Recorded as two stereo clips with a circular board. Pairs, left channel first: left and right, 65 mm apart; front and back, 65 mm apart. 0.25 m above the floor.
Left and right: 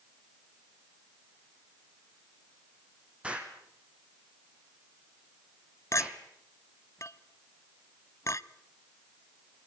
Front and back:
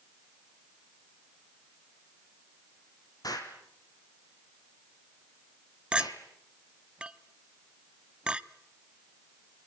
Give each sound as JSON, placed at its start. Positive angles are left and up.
{"t": 3.2, "sound": "an explosion", "azimuth_deg": -15, "distance_m": 3.5}
{"t": 5.9, "sound": "a clink", "azimuth_deg": 105, "distance_m": 0.8}